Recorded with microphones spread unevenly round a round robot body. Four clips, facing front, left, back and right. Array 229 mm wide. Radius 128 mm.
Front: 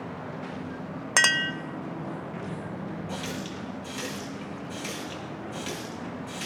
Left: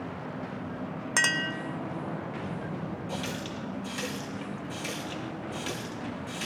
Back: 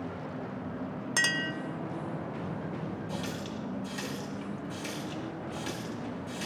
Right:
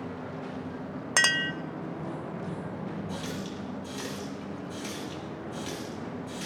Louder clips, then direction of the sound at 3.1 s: Left 1 dB, front 2 dB; 50° left.